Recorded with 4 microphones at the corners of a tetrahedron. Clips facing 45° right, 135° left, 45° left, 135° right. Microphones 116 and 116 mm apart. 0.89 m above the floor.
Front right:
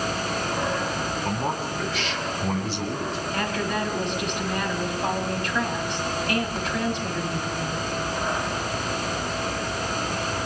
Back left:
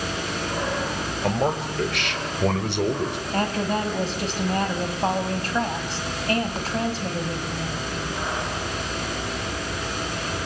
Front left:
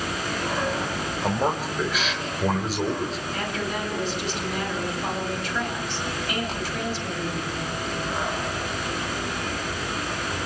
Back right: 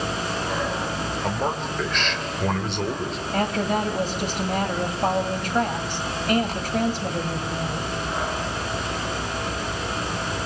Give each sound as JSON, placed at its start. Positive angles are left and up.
{"t": 1.2, "sound": "a man speaking", "azimuth_deg": 125, "distance_m": 5.0}
{"t": 3.3, "sound": "a woman speaking", "azimuth_deg": -170, "distance_m": 5.5}